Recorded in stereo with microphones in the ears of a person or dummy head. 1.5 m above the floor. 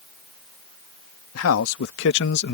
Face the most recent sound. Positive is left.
turn(degrees=50)  # may be behind; listen again after turning